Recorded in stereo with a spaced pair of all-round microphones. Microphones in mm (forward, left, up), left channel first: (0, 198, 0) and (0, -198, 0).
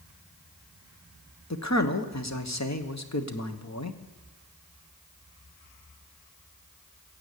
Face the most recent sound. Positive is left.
turn(degrees=45)  # may be behind; listen again after turning